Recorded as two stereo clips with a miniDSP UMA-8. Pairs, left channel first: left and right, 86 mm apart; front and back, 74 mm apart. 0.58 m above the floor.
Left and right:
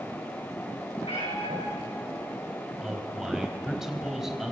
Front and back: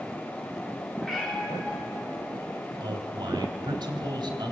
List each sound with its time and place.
1.0 s a cat meowing: 90° left, 8 m
2.8 s a man speaking: 175° right, 3.5 m